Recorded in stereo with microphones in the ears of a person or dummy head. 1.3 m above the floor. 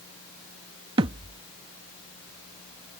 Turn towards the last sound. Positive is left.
turn(degrees=-30)  # may be behind; listen again after turning